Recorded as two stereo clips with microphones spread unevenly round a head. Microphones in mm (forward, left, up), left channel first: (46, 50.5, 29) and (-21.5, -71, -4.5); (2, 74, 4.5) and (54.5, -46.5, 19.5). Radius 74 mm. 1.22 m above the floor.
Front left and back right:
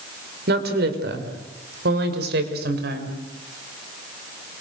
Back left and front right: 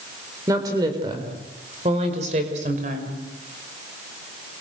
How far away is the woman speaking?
About 4.5 m.